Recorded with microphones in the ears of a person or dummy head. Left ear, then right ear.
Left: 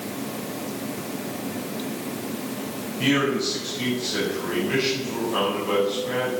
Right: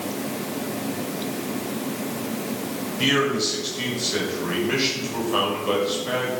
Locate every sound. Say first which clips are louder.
3.0 s a man speaking: right 1 dB; 20° right (ahead or behind), 5.5 m